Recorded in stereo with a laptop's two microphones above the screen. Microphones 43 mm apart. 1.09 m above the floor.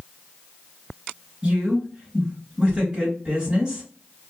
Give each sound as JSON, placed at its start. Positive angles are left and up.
{"t": 1.4, "sound": "a woman speaking", "side_deg": -10, "distance_m": 1.7}